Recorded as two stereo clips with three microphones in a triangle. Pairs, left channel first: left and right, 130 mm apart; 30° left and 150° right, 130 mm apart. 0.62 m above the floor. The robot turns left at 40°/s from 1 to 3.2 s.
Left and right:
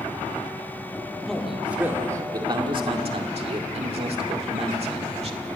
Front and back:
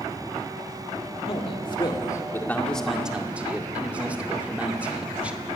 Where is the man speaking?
5° left, 1.9 m; by 5.5 s 70° right, 1.9 m.